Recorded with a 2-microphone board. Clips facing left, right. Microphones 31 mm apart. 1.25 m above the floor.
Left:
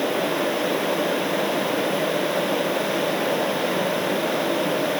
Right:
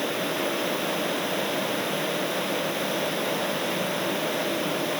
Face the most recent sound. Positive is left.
No sound to turn to.